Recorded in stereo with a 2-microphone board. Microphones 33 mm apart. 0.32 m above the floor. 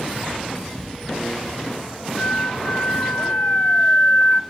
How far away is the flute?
About 0.8 m.